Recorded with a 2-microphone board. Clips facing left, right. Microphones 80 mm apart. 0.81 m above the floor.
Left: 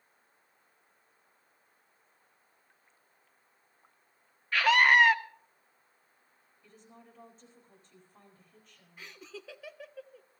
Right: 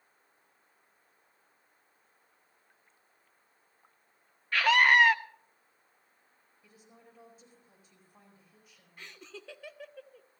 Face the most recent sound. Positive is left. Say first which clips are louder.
# left 1 dB
turn(degrees=0)  # may be behind; listen again after turning